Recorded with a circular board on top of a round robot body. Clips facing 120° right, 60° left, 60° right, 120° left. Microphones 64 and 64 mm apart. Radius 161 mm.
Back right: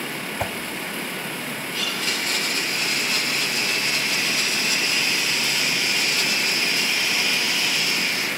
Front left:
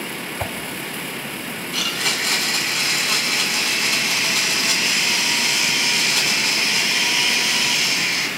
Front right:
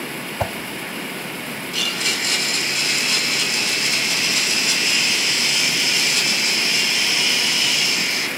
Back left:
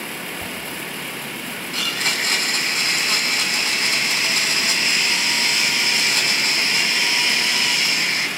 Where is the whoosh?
35° right, 0.7 m.